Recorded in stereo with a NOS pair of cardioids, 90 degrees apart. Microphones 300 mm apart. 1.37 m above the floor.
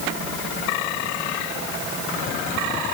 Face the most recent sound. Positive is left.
No sound to turn to.